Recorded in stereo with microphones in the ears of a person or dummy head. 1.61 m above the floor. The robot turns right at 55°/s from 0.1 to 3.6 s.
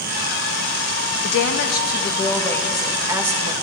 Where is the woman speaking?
100° left, 1.8 m; by 3.5 s 135° right, 1.8 m.